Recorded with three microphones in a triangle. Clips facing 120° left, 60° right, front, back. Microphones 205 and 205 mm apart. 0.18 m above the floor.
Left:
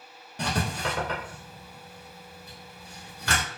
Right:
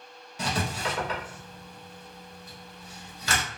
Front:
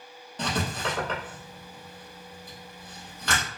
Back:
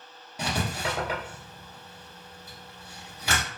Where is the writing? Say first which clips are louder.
Left 1 dB, front 1 dB; 100° left, 1.2 m.